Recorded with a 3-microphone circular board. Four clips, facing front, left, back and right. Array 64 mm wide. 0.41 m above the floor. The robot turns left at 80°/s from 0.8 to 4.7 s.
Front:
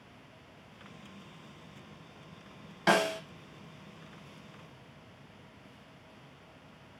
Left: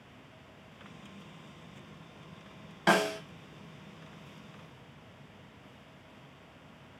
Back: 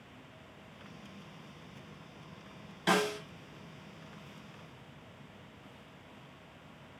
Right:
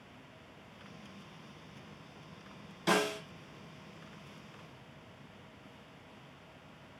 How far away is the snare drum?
About 0.6 m.